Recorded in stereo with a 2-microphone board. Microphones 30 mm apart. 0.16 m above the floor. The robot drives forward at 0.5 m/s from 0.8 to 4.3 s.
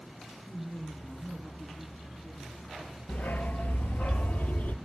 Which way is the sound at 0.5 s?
25° left (ahead or behind).